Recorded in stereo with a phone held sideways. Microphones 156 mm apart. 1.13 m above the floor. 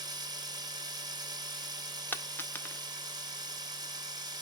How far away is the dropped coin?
About 0.5 m.